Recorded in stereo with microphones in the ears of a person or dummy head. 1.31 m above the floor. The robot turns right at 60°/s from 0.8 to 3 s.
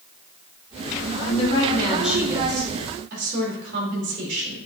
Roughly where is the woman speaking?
Behind left.